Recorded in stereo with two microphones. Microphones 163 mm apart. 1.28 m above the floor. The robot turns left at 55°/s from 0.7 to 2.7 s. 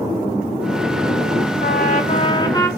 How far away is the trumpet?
About 1.6 m.